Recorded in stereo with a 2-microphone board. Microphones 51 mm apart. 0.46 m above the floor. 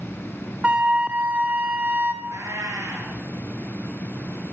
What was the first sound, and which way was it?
A flute, 25° right (ahead or behind).